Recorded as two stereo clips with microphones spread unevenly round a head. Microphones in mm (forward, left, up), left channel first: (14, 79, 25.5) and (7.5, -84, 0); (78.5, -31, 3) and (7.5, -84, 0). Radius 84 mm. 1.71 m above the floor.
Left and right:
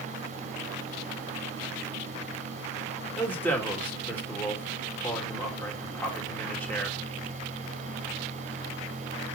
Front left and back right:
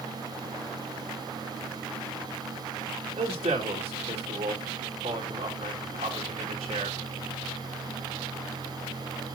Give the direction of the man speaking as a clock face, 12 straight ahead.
6 o'clock.